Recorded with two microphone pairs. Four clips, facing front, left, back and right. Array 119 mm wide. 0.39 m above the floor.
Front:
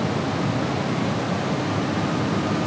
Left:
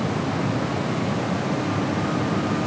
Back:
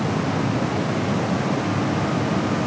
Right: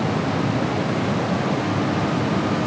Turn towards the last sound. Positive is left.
No sound to turn to.